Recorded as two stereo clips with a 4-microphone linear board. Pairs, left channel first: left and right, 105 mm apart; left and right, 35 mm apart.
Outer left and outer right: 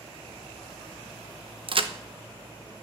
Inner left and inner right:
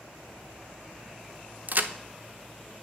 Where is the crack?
55° right (ahead or behind), 0.7 m.